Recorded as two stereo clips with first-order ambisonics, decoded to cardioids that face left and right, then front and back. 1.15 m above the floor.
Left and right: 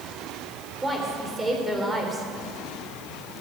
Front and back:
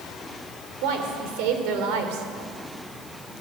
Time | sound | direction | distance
0.8 | a woman speaking | 170° right | 4 m